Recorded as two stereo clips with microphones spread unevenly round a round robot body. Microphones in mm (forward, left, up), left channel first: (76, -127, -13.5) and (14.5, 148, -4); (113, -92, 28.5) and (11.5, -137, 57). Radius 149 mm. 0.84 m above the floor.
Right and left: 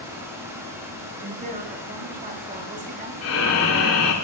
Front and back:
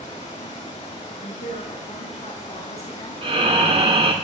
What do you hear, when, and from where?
0.0 s running water: 20° left, 6.5 m
1.2 s a woman speaking: 40° left, 5.5 m
3.2 s breathing: 125° right, 2.5 m